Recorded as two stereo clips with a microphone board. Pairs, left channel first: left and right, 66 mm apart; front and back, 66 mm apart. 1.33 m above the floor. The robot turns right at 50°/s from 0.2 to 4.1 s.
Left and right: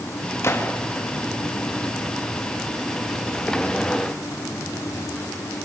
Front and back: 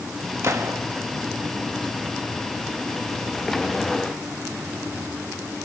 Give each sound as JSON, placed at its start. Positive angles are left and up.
{"t": 0.4, "sound": "a gunshot", "azimuth_deg": 135, "distance_m": 2.5}